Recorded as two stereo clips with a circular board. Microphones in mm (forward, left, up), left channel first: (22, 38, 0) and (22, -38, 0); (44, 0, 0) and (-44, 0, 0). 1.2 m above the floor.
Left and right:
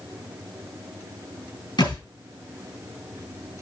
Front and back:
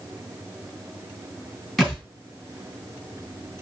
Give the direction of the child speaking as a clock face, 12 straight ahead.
I don't hear a child speaking.